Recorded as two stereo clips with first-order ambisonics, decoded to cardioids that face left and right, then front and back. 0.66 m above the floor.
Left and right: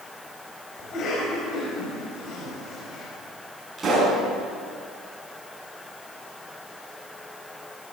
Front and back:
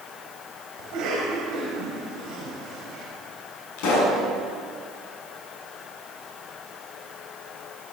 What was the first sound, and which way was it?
A cough, 140° left.